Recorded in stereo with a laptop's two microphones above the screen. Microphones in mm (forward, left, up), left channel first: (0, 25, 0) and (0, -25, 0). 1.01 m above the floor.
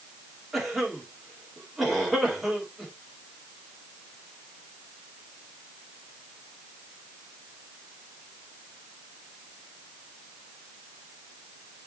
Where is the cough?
Centre (ahead or behind), 2 m.